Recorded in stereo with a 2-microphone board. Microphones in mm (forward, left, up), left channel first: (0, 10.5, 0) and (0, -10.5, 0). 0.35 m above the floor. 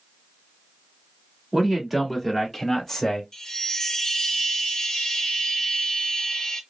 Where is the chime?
40° left (ahead or behind), 0.7 m.